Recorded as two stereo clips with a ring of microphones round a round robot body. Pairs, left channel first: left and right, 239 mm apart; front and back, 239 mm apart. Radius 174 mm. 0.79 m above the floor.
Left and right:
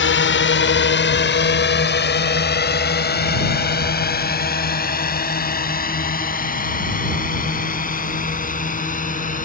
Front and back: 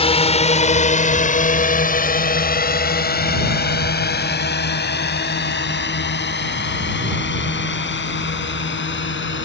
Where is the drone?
65° left; by 9.5 s 35° left.